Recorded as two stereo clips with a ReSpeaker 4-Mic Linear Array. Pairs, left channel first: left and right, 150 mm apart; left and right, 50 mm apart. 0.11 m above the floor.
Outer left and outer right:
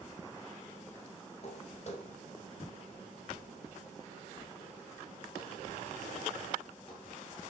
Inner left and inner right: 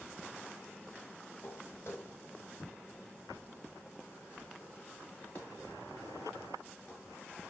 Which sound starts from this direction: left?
Footsteps, at 1.4 s.